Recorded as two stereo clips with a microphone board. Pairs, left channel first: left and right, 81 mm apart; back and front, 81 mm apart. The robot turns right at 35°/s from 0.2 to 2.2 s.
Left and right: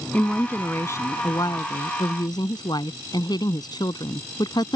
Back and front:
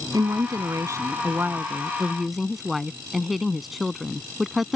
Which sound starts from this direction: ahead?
A woman speaking, at 0.1 s.